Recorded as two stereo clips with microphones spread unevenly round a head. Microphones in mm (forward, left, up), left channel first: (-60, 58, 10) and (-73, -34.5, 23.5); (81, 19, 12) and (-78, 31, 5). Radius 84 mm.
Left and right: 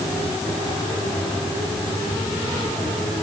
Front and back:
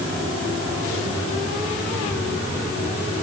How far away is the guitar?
No guitar in this recording.